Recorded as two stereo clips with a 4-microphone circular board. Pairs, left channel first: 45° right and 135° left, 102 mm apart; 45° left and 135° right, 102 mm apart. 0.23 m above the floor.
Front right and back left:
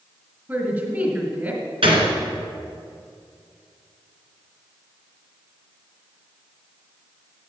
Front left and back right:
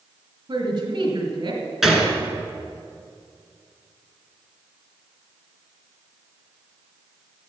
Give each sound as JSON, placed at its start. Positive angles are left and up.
{"t": 0.5, "sound": "a woman speaking", "azimuth_deg": -165, "distance_m": 1.9}
{"t": 1.8, "sound": "a gunshot", "azimuth_deg": 140, "distance_m": 2.5}